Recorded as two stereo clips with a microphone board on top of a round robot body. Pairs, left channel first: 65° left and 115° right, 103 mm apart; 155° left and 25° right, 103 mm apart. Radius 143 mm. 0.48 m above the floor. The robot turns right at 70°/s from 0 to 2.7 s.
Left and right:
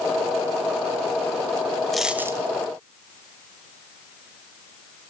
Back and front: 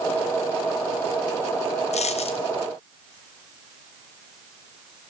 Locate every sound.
1.9 s a dropped coin: 155° left, 1.2 m; by 2.5 s 170° right, 1.2 m